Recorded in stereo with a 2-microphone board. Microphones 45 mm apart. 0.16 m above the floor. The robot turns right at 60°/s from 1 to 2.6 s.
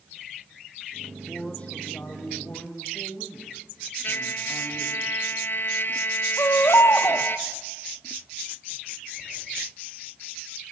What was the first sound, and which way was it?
A man speaking, straight ahead.